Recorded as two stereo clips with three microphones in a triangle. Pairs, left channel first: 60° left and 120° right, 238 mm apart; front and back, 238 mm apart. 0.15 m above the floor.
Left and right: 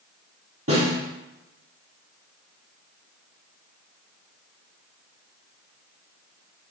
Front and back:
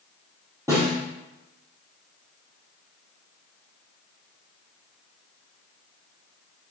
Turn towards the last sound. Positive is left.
turn(degrees=-105)